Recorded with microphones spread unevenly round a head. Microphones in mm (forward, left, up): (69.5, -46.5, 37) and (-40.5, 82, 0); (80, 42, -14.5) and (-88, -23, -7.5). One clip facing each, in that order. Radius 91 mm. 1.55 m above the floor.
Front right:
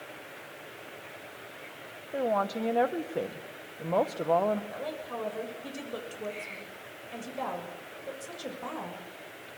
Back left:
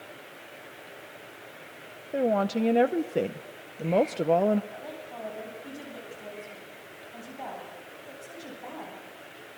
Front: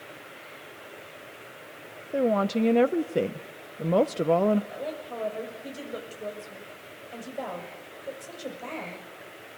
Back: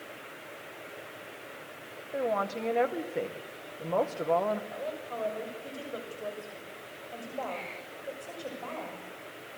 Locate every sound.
2.1 s a woman speaking: 60° left, 0.8 m
4.7 s a woman speaking: 50° right, 6.5 m